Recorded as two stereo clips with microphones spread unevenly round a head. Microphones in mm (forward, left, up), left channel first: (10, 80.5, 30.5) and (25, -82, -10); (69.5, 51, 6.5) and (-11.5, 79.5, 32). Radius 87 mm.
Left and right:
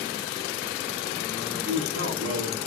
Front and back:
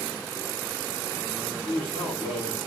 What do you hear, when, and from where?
1.6 s a man speaking: 100° right, 7 m